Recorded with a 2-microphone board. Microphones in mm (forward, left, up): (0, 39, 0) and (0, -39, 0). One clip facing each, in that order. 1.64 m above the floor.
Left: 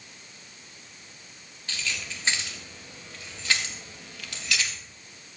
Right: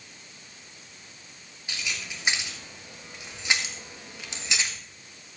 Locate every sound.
1.7 s keys jangling: 15° right (ahead or behind), 2.5 m; by 4.8 s 25° right (ahead or behind), 1.1 m